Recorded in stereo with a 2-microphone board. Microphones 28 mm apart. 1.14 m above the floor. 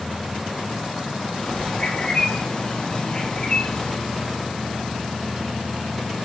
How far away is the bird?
About 2.5 m.